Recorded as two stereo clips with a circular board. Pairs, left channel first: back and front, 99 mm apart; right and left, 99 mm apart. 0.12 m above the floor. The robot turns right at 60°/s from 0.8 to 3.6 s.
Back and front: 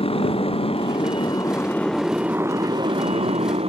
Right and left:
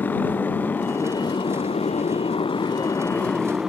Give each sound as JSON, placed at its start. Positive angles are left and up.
{"t": 0.0, "sound": "a motorcycle", "azimuth_deg": -160}